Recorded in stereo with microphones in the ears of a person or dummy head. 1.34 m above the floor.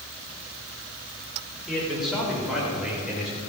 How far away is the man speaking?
About 4 m.